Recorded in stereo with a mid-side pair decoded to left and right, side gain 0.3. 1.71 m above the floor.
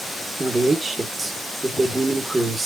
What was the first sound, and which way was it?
A man speaking, 35° right.